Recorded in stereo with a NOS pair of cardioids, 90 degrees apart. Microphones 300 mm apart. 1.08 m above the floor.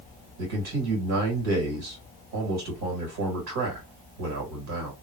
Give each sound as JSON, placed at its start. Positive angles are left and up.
{"t": 0.4, "sound": "a man speaking", "azimuth_deg": -65, "distance_m": 1.8}